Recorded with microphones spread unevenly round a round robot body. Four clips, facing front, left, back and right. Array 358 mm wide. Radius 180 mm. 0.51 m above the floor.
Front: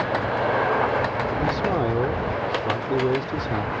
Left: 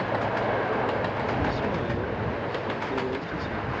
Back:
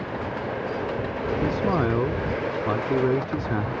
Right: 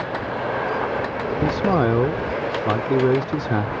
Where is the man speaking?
105° right.